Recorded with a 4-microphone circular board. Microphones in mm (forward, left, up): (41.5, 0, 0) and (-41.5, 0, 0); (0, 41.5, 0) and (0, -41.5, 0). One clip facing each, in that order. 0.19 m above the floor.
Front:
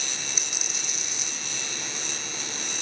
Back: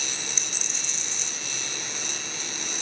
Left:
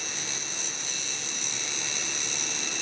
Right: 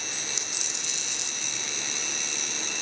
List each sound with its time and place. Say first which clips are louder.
0.1 s a dropped coin: even, even; 85° right, 1.5 m